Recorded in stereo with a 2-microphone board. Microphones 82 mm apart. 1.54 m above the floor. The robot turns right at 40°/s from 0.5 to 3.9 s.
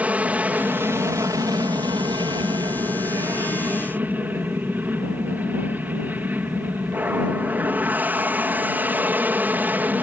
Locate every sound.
0.0 s an aircraft: 160° right; by 10.0 s 25° right